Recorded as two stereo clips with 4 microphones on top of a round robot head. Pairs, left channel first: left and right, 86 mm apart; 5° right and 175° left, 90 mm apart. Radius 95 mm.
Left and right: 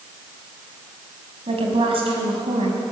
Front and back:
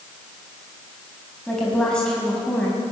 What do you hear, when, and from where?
1.5 s a woman speaking: 90° right, 4.5 m